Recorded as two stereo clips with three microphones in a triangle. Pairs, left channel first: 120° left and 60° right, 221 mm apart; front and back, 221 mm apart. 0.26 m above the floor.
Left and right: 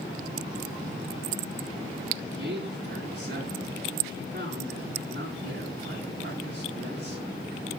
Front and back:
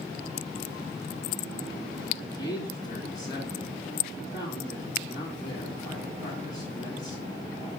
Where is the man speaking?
70° right, 1.9 m.